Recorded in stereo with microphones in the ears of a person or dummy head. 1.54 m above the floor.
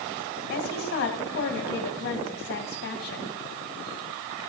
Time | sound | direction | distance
0.5 | a woman speaking | 65° left (ahead or behind) | 2 m